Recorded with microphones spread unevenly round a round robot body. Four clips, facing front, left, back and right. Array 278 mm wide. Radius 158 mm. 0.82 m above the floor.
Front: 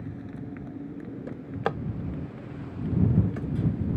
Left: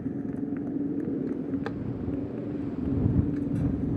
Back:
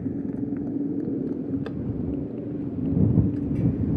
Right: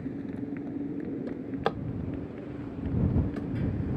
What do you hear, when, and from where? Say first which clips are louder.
0.0 s a motorcycle: left 4 dB, back 10 dB; 165° left; by 4.0 s 150° left
1.3 s a drawer: left 1 dB, back 3 dB; 25° right